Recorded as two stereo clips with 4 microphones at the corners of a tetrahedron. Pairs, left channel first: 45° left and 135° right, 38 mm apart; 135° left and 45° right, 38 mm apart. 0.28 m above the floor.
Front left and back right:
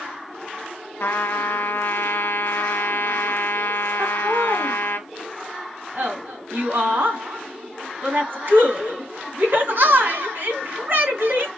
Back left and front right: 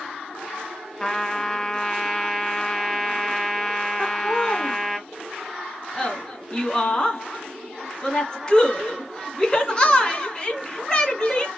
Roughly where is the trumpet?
Ahead left.